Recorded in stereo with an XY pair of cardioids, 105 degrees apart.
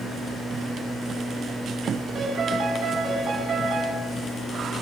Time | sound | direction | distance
2.1 | a piano | 40° right | 9 m